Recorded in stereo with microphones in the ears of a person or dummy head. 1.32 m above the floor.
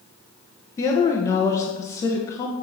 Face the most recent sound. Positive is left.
turn(degrees=20)  # may be behind; listen again after turning